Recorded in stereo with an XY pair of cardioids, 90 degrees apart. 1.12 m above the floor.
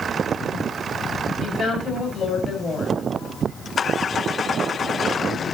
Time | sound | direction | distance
1.4 | a woman speaking | 60° left | 4.5 m